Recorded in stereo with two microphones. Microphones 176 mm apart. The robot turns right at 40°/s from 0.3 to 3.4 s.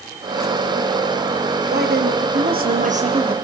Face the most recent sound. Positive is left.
turn(degrees=-30)